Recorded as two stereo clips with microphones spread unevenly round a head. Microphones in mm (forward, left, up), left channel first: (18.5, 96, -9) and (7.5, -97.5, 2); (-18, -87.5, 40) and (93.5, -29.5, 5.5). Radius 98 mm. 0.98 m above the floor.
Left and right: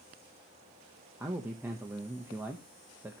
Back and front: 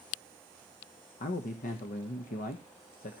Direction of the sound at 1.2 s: 175° right.